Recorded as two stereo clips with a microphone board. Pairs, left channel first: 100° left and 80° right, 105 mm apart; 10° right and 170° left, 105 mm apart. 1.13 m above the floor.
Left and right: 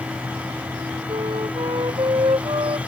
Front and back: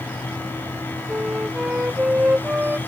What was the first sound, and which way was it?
A flute, 115° right.